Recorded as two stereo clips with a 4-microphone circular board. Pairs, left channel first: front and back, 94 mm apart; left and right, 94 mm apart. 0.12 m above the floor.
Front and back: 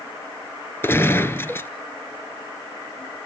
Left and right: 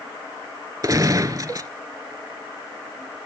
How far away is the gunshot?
About 0.8 m.